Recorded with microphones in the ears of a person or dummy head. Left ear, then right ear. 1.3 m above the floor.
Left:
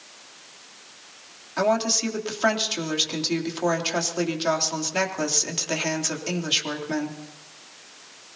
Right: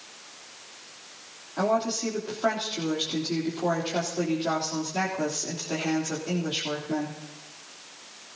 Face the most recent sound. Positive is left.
turn(degrees=65)  # may be behind; listen again after turning